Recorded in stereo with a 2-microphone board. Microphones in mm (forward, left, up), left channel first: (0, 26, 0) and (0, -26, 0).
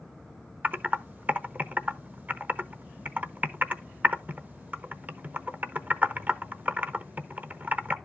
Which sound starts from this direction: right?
Typing on a keyboard, at 0.6 s.